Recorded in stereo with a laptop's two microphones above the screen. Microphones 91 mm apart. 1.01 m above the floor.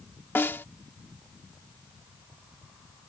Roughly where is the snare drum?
Left.